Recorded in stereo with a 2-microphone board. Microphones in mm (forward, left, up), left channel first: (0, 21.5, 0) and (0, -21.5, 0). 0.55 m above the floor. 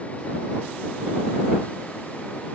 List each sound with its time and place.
Only background noise.